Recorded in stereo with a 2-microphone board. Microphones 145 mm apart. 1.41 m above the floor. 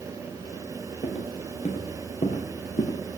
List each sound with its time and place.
1.0 s footsteps: 45° left (ahead or behind), 2.5 m; by 3.0 s 55° left (ahead or behind), 2.5 m